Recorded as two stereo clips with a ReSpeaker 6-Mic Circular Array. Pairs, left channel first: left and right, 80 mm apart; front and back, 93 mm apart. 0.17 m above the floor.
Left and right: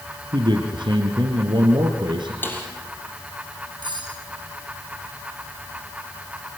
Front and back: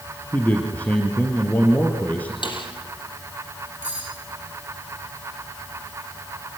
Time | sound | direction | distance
0.3 | a man speaking | 75° right | 3 m
2.4 | a snare drum | 25° left | 4.5 m
3.8 | cutlery clinking | 110° right | 7.5 m